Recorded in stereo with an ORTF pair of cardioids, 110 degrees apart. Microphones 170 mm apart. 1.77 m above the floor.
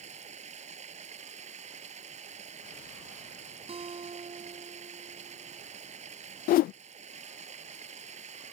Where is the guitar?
35° right.